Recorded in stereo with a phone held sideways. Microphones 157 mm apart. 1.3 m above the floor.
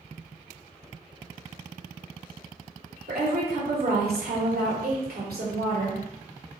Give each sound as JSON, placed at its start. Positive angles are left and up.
{"t": 3.1, "sound": "a woman speaking", "side_deg": -75, "distance_m": 1.1}